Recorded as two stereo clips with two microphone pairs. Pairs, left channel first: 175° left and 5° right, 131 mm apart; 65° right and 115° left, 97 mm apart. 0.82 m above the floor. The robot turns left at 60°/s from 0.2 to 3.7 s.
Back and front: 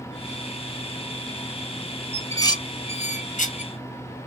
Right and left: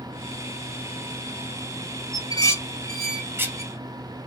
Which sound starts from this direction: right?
Dishes clattering, at 2.1 s.